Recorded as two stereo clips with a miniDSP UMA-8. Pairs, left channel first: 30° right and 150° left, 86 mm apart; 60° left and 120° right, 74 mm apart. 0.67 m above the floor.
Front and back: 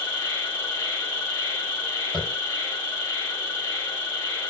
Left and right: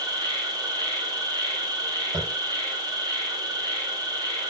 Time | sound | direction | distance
0.0 | an insect | 95° right | 2 m
2.1 | tapping | 120° right | 3 m